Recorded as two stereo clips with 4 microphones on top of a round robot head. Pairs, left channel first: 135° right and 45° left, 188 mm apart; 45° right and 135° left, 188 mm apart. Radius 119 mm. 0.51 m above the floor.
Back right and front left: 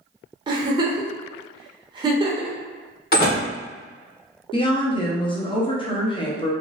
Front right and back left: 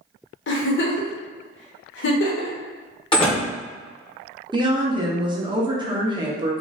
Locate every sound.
0.5 s a giggle: 25° right, 0.7 m
3.1 s a door slam: 105° right, 1.5 m
4.5 s a woman speaking: 175° right, 0.8 m